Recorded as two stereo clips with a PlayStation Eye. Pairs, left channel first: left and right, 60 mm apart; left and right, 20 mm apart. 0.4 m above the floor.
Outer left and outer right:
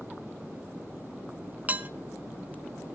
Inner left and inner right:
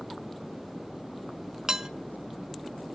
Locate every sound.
1.7 s dishes clattering: 25° right (ahead or behind), 0.6 m